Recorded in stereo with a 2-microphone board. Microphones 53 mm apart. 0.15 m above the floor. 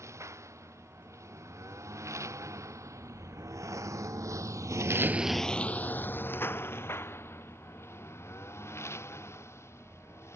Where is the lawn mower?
65° right (ahead or behind); by 10.4 s 55° left (ahead or behind).